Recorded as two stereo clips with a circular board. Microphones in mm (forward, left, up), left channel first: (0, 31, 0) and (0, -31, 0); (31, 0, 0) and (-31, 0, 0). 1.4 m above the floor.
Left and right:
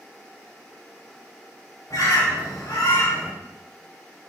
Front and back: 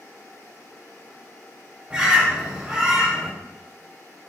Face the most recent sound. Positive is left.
turn(degrees=105)